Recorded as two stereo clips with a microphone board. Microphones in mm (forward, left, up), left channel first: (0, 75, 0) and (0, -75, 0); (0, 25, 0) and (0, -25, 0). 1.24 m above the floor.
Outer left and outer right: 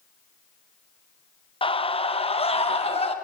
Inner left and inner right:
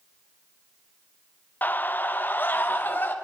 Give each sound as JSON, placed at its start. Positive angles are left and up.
{"t": 1.6, "sound": "a scream", "side_deg": 35, "distance_m": 0.9}